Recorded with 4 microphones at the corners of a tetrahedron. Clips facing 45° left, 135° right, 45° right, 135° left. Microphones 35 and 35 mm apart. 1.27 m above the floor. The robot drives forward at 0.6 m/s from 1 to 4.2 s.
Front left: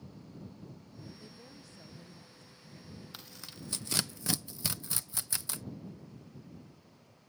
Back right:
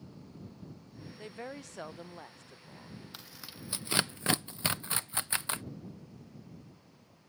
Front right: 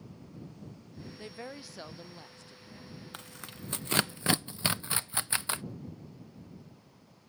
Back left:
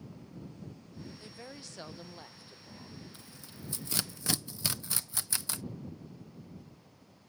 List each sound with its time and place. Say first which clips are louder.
1.2 s a woman speaking: back right 9 dB, front right 4 dB; 100° right; by 3.0 s 155° right
3.1 s tearing paper: even, front right 5 dB; 45° right; by 5.6 s 95° right